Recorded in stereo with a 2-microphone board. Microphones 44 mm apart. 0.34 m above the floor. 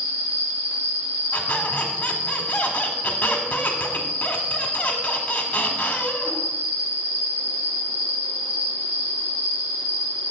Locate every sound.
0.0 s an insect: 35° right (ahead or behind), 1.2 m
1.3 s a squeak: 35° left (ahead or behind), 1.4 m